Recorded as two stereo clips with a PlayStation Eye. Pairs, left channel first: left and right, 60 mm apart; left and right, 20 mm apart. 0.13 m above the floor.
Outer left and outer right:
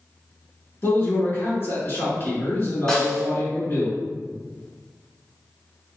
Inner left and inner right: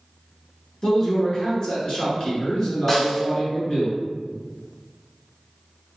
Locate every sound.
0.8 s a man speaking: 40° left (ahead or behind), 1.5 m
2.9 s a snare drum: 15° left (ahead or behind), 0.9 m